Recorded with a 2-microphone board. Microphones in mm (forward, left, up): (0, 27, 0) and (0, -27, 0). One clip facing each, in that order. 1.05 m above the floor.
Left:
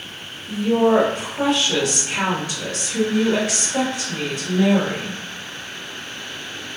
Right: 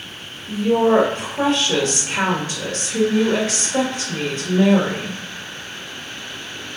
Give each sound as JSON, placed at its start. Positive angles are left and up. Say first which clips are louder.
{"t": 0.5, "sound": "a woman speaking", "louder": "right 1 dB", "side_deg": -35, "distance_m": 1.5}